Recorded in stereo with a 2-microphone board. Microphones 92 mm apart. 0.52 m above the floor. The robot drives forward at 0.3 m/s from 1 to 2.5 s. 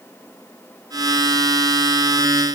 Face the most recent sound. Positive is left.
No sound to turn to.